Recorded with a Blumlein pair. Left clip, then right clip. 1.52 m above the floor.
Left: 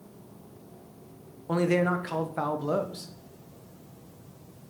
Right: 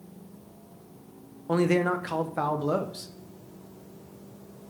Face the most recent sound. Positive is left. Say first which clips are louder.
# right 1 dB
turn(degrees=-5)